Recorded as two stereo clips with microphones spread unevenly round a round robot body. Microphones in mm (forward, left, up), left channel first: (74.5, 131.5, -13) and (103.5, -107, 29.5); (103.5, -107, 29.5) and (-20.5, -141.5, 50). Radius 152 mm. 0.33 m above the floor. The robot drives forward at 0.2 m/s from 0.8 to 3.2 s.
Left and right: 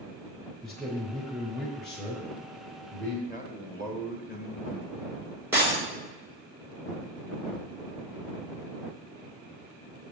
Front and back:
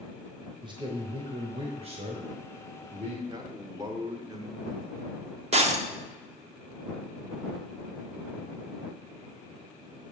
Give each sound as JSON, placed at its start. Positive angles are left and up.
{"t": 0.6, "sound": "a man speaking", "azimuth_deg": 165, "distance_m": 0.9}
{"t": 3.3, "sound": "a man speaking", "azimuth_deg": -170, "distance_m": 0.8}
{"t": 5.5, "sound": "breaking glass", "azimuth_deg": -175, "distance_m": 0.9}